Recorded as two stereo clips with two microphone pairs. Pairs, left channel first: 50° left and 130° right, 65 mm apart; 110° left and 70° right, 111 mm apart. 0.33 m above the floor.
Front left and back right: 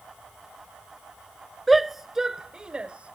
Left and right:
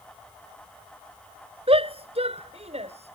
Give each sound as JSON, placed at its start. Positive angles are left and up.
{"t": 1.7, "sound": "a shout", "azimuth_deg": -40}